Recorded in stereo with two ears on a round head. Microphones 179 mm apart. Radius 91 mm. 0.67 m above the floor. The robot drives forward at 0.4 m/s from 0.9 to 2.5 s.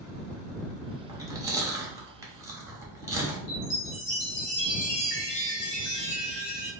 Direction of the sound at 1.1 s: 15° right (ahead or behind).